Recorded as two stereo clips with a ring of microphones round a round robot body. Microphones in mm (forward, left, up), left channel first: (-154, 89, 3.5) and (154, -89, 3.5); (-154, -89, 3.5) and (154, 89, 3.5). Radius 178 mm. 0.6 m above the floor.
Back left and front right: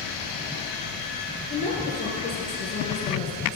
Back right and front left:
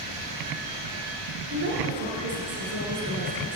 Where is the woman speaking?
80° left, 8 m.